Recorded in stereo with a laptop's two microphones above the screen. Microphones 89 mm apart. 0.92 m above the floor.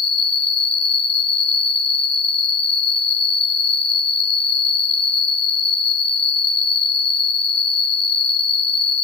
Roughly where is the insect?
Left.